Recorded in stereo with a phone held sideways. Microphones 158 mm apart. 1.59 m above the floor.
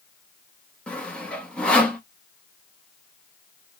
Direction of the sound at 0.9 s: 5° left (ahead or behind).